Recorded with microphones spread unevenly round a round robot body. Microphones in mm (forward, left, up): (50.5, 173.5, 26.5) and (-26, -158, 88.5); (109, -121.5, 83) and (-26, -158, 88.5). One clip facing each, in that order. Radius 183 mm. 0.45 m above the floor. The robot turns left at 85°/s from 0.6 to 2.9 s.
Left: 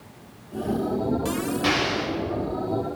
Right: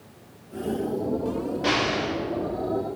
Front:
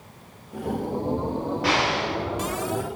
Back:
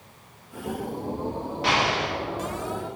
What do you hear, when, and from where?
1.6 s an explosion: 130° left, 2.5 m; by 2.1 s 85° left, 2.5 m